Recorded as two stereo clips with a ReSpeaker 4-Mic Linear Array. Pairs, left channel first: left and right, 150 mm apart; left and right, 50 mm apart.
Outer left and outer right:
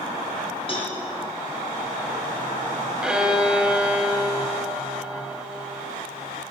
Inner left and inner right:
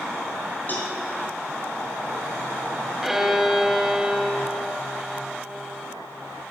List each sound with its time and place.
0.7 s a cowbell: 40° left (ahead or behind), 2.5 m
3.0 s a violin: 5° right (ahead or behind), 1.3 m